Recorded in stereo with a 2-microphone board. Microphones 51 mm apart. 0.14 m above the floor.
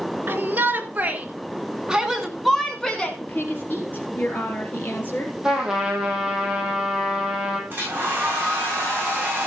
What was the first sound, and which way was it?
A shout, 40° right (ahead or behind).